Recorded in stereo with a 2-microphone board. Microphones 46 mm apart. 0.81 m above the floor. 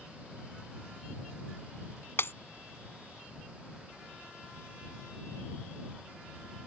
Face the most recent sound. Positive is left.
turn(degrees=60)  # may be behind; listen again after turning